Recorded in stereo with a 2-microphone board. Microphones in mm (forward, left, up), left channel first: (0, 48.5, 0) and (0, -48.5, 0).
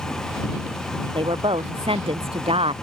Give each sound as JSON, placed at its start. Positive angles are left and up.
{"t": 1.1, "sound": "a woman speaking", "side_deg": -65}